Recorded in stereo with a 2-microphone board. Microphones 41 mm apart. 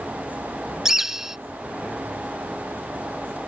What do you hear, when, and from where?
0.8 s a bird: 10° right (ahead or behind)